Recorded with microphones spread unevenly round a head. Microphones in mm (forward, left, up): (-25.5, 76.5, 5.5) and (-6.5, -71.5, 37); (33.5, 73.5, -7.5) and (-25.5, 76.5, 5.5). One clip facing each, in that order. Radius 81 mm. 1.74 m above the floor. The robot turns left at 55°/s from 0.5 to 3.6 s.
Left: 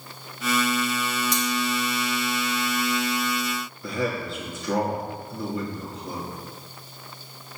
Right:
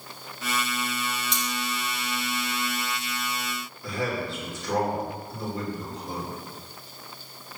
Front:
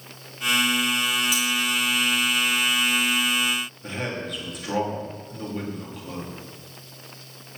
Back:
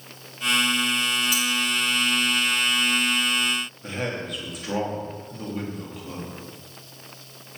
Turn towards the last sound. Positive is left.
turn(degrees=90)